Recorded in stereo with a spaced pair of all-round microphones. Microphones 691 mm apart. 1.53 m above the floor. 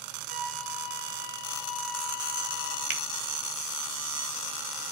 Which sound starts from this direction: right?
A finger snap, at 2.9 s.